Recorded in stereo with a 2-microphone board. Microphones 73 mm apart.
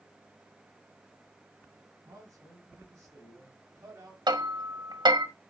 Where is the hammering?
90° right, 1.6 m.